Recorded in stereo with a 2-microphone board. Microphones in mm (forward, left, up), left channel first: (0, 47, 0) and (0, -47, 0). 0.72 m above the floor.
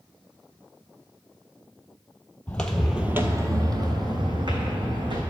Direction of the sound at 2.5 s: 15° left (ahead or behind).